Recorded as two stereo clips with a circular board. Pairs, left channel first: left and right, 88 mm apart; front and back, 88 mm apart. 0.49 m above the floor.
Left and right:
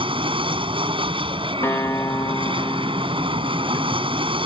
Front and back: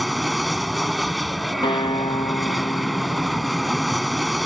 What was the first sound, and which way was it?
An aircraft, 90° right.